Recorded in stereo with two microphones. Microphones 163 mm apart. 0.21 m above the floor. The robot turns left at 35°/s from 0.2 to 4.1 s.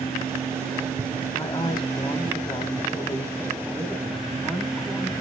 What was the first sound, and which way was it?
A woman speaking, 20° left (ahead or behind).